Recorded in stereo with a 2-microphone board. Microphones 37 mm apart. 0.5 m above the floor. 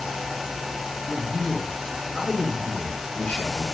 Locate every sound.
1.1 s a man speaking: 35° left (ahead or behind), 2 m